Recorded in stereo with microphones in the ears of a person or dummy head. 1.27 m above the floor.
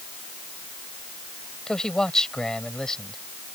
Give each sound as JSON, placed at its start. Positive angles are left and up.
{"t": 1.7, "sound": "a man speaking", "side_deg": 5}